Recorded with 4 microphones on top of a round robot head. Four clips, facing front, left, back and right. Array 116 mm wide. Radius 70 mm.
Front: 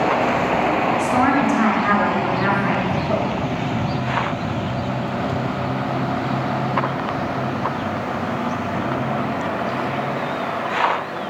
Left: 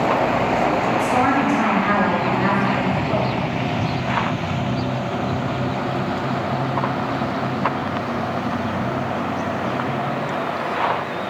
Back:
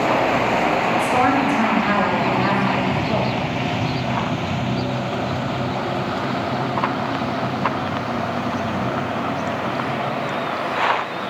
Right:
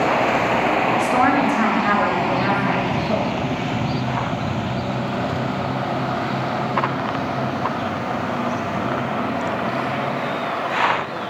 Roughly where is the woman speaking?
Right.